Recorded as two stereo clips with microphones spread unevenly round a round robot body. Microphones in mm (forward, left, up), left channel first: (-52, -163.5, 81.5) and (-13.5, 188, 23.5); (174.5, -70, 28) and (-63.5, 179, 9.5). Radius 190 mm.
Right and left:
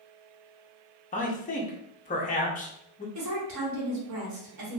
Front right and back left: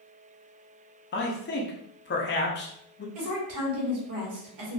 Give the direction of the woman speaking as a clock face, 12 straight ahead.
8 o'clock.